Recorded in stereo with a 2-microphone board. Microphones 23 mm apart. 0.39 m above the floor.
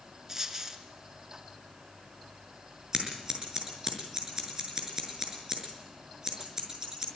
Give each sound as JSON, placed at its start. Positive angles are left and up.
{"t": 0.3, "sound": "a dropped coin", "side_deg": -25, "distance_m": 3.0}
{"t": 2.9, "sound": "scissors", "side_deg": -25, "distance_m": 6.0}